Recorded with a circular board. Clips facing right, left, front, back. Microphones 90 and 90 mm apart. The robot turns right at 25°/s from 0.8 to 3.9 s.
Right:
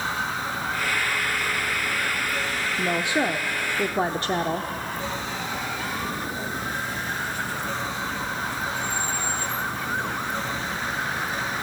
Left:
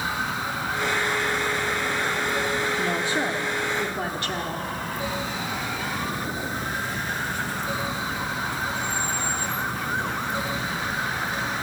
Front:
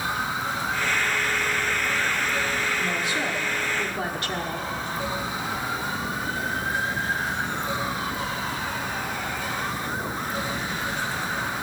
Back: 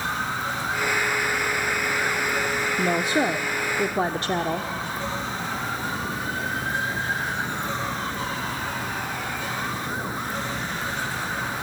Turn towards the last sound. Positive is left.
turn(degrees=-135)